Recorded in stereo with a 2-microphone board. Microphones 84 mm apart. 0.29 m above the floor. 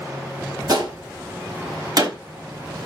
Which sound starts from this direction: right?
A gunshot, at 0.7 s.